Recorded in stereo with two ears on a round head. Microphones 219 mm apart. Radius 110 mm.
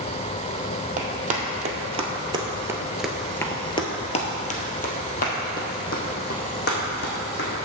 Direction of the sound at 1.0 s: 35° right (ahead or behind).